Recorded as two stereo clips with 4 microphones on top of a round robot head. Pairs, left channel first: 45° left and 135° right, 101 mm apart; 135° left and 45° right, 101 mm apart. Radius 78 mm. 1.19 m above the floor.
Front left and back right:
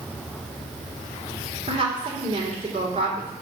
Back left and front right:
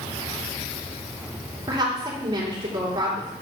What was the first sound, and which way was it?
A woman speaking, 95° right.